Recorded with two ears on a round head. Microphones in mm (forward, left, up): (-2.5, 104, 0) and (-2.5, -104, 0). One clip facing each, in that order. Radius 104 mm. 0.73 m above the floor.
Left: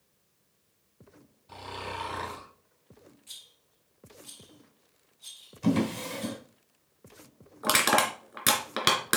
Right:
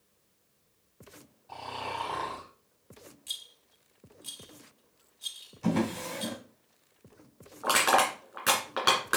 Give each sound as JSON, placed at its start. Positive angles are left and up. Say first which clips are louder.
{"t": 1.5, "sound": "snoring", "louder": "even", "side_deg": 20, "distance_m": 4.5}
{"t": 3.3, "sound": "a rattle", "louder": "right 3 dB", "side_deg": -60, "distance_m": 2.5}
{"t": 5.6, "sound": "a drawer", "louder": "left 2 dB", "side_deg": 20, "distance_m": 3.0}
{"t": 7.6, "sound": "crushing", "louder": "even", "side_deg": 40, "distance_m": 2.5}